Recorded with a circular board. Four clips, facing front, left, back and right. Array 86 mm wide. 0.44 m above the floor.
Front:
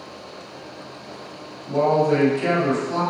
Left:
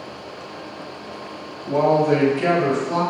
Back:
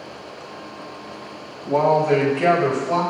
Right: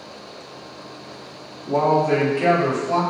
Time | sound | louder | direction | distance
1.6 | a man speaking | left 1 dB, back 1 dB | straight behind | 2.5 m